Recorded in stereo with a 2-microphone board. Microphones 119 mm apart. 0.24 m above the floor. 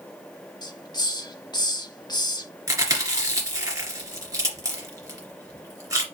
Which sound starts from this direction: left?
A hiss, at 0.6 s.